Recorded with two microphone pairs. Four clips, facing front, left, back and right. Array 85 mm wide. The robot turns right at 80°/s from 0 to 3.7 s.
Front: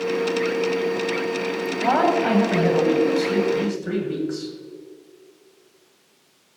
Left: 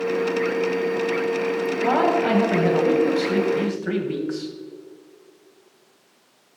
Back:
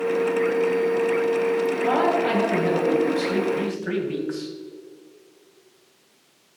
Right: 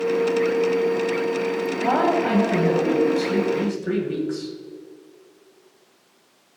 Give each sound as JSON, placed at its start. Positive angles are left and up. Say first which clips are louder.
{"t": 1.8, "sound": "a man speaking", "louder": "even, front 5 dB", "azimuth_deg": -20, "distance_m": 1.7}